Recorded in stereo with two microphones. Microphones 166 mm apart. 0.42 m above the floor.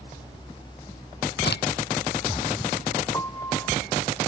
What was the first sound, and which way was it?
A crack, 80° left.